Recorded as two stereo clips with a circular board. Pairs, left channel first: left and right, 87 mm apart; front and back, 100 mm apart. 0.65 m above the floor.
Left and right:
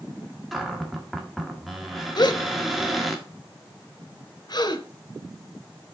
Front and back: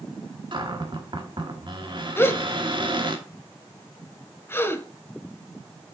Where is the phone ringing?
I don't hear a phone ringing.